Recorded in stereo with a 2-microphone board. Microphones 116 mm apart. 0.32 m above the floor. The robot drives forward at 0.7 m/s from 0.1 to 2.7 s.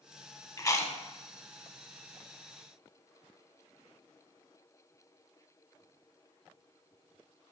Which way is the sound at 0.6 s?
35° left (ahead or behind).